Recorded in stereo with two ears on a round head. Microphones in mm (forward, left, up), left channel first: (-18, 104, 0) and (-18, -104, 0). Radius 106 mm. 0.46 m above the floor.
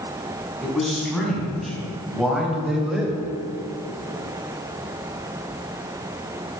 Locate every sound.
0.6 s a man speaking: centre (ahead or behind), 4.5 m; by 3.3 s 5° right (ahead or behind), 1.9 m